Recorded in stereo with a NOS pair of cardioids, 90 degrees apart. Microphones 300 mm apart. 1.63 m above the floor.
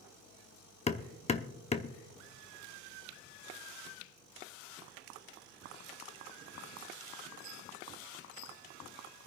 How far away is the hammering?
About 0.8 m.